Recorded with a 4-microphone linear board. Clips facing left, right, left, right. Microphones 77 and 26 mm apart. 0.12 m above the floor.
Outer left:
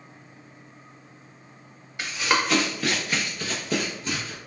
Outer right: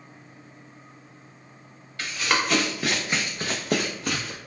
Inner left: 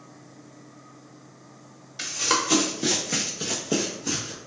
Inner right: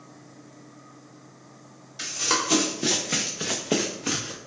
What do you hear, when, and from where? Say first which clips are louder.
2.0 s running footsteps: outer left 1 dB, inner left 1 dB; 15° left (ahead or behind), 1.0 m; by 4.4 s 75° right (ahead or behind), 0.8 m